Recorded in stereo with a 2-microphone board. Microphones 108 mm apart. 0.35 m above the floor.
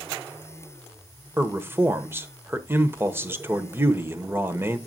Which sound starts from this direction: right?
A man speaking, at 1.4 s.